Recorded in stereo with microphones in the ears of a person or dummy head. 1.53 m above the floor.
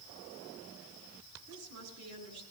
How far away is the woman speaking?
About 7 m.